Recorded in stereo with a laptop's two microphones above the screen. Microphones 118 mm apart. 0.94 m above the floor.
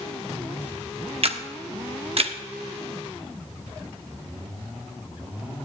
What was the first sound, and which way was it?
A camera shutter, 55° right (ahead or behind).